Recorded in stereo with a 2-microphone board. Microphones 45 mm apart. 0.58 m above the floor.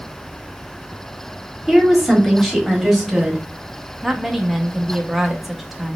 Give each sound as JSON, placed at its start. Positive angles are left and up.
{"t": 1.7, "sound": "a woman speaking", "side_deg": 0, "distance_m": 1.4}
{"t": 4.0, "sound": "a woman speaking", "side_deg": -5, "distance_m": 0.7}